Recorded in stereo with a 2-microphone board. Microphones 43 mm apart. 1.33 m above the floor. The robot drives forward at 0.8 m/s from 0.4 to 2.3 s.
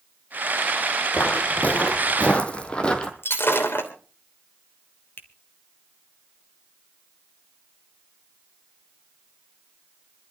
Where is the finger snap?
50° left (ahead or behind), 1.9 m.